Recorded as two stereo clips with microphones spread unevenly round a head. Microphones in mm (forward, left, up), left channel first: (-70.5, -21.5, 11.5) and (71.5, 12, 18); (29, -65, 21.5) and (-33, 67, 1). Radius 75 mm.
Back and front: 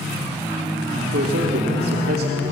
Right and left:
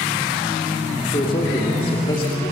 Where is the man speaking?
5° right, 3 m.